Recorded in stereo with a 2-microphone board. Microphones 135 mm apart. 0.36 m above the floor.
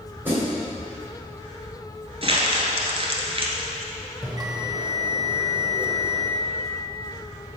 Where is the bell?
30° right (ahead or behind), 0.7 m.